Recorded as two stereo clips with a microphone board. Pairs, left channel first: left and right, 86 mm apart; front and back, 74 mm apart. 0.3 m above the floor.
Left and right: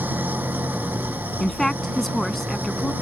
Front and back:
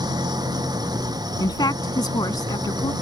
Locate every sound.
0.0 s an engine running: 160° right
1.4 s a woman speaking: 5° left